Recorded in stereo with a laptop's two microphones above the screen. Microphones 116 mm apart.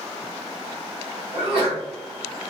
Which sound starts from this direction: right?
A sneeze, at 1.3 s.